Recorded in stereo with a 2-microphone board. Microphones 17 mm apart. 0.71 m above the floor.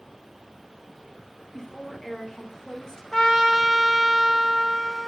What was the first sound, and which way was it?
A woman speaking, 30° left (ahead or behind).